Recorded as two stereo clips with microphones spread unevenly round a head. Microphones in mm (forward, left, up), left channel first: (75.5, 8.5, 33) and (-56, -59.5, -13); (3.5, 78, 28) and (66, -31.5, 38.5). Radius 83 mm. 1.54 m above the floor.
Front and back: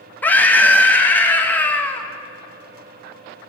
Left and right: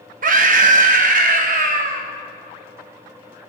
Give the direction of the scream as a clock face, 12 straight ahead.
2 o'clock.